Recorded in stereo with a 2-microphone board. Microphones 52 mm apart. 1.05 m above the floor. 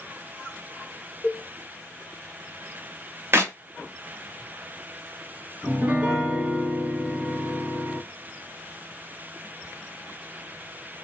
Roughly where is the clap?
Right.